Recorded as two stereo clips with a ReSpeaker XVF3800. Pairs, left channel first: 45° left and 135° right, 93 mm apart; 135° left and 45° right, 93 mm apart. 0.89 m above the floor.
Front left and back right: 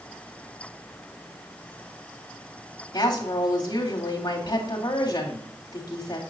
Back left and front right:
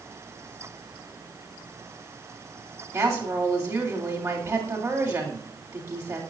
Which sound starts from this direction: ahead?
A woman speaking, at 2.9 s.